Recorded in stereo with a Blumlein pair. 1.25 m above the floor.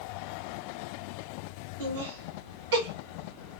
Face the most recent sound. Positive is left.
turn(degrees=-30)